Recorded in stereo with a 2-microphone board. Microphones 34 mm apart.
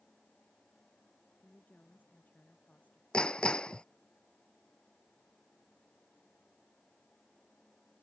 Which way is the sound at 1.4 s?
55° left (ahead or behind).